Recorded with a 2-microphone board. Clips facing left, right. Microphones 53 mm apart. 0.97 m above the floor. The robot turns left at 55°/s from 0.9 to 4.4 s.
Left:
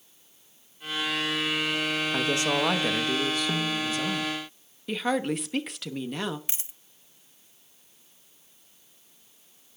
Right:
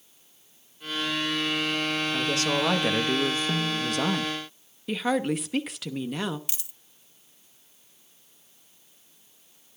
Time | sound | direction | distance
2.1 | a woman speaking | 35° left | 1.1 m
3.5 | a snare drum | 10° left (ahead or behind) | 0.6 m
4.9 | a woman speaking | centre (ahead or behind) | 1.0 m
6.5 | a dropped coin | 30° left (ahead or behind) | 0.9 m